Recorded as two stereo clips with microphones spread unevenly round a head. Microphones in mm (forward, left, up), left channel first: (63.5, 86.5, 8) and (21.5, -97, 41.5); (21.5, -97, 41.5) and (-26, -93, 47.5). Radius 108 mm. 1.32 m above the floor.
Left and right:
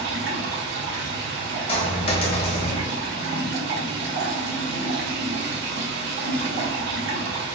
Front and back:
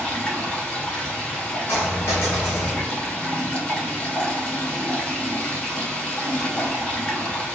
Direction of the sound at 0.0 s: 75° right.